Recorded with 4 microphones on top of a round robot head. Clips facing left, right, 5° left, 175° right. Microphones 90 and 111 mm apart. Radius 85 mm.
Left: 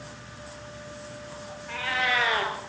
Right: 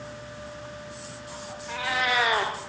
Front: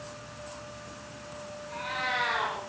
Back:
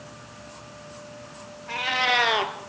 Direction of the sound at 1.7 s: 170° right.